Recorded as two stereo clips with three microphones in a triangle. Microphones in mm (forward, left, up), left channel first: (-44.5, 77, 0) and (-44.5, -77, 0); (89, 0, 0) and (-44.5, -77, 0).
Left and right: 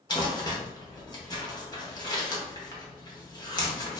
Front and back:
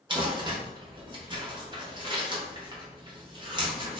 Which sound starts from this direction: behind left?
Crumpling, at 0.1 s.